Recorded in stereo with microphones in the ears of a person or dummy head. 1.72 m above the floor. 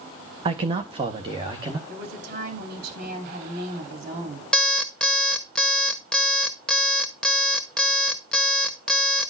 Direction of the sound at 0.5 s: 30° right (ahead or behind).